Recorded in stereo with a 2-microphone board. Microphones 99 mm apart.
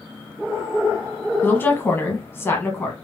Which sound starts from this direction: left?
A woman speaking, at 1.4 s.